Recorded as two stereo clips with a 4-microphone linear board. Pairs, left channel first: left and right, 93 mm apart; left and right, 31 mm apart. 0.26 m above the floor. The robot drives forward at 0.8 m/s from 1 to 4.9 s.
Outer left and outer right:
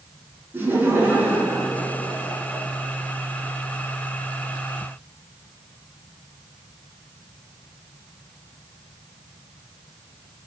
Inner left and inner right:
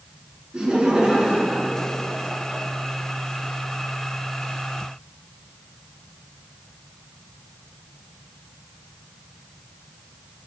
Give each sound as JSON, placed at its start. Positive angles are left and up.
{"t": 0.5, "sound": "laughter", "side_deg": -25, "distance_m": 3.5}